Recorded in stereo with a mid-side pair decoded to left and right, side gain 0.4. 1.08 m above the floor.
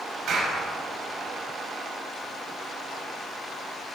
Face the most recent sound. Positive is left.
turn(degrees=-65)